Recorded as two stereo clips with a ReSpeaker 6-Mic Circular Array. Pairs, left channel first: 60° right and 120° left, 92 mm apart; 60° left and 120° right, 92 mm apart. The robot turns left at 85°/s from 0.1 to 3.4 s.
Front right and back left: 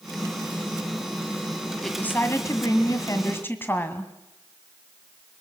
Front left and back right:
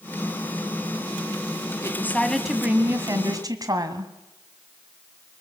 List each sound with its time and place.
1.8 s a woman speaking: 20° left, 1.9 m; by 4.1 s 115° right, 1.9 m